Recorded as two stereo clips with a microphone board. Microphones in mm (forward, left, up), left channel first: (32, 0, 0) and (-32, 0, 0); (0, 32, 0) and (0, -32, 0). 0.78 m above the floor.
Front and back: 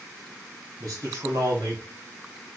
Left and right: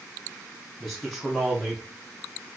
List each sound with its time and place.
0.8 s a man speaking: 165° right, 1.2 m